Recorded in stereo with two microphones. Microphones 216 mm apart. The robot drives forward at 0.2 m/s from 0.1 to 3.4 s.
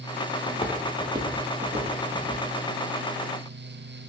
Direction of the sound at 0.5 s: 40° left (ahead or behind).